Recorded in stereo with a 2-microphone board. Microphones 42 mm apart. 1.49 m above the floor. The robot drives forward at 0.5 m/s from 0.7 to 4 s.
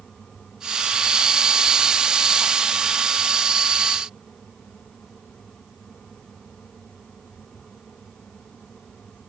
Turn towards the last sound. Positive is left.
No sound to turn to.